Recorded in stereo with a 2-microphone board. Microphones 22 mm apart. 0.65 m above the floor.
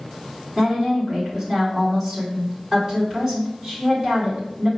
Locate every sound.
0.6 s a woman speaking: 25° right (ahead or behind), 1.9 m